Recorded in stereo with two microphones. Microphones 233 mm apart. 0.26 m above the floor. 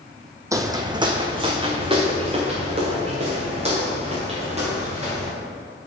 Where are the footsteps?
15° right (ahead or behind), 0.7 m; by 5.3 s 25° right (ahead or behind), 4.5 m.